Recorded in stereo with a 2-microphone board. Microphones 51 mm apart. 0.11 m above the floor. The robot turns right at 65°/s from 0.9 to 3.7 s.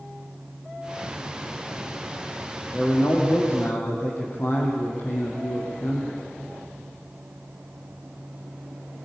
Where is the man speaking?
50° left, 4 m; by 6.2 s 110° left, 4 m.